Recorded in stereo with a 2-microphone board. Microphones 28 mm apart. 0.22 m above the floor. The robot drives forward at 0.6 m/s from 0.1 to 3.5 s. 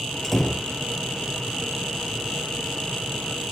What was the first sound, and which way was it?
A door slam, 10° left (ahead or behind).